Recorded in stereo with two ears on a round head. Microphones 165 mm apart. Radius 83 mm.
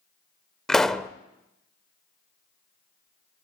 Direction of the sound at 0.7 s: 5° left (ahead or behind).